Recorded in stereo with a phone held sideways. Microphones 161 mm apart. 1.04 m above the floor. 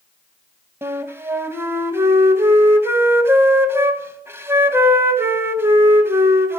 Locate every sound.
0.8 s a flute: 15° right (ahead or behind), 0.9 m